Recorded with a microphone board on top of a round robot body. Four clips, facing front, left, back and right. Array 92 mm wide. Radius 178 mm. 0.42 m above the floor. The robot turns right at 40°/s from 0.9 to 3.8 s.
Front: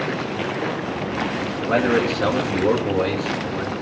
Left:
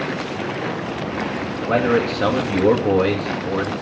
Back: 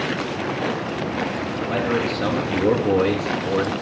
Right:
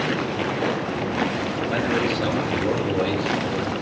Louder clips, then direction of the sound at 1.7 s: Left 6 dB, front 4 dB; 55° left.